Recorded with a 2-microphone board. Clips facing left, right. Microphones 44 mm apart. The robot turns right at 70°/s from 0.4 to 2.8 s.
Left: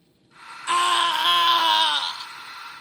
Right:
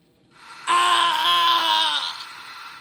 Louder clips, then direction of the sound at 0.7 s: Right 2 dB; 55° right.